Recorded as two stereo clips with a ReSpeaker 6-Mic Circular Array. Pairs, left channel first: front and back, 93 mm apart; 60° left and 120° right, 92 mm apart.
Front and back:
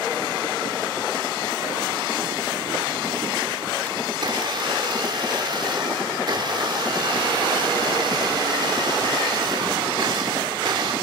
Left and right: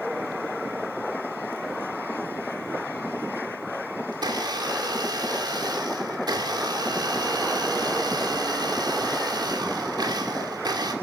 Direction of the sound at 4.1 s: 155° right.